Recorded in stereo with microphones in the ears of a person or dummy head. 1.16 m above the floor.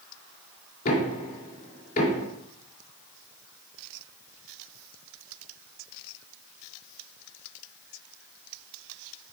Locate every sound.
0.8 s knocking: 45° left (ahead or behind), 3.5 m